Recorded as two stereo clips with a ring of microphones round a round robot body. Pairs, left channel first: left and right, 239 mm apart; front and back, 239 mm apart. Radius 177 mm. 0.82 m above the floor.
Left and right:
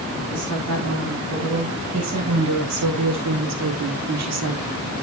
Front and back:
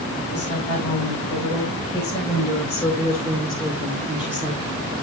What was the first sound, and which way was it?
A woman speaking, 75° right.